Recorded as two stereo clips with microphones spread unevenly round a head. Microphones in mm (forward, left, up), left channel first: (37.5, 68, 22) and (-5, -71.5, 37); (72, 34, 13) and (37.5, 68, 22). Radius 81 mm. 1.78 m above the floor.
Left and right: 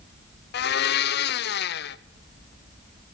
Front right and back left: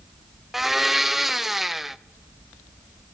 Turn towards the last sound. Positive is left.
turn(degrees=55)